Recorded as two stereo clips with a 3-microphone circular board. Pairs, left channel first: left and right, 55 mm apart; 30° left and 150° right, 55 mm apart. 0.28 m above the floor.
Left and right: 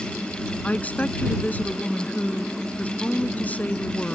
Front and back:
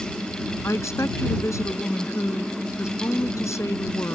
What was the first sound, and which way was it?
A woman speaking, 35° left.